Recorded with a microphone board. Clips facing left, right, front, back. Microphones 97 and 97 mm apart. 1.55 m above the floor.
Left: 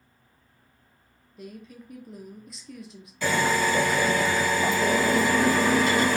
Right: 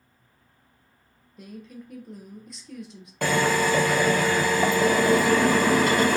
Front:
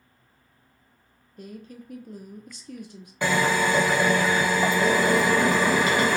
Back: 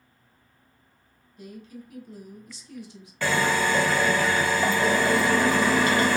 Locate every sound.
1.4 s a woman speaking: straight ahead, 0.7 m
3.2 s a drill: 70° right, 0.9 m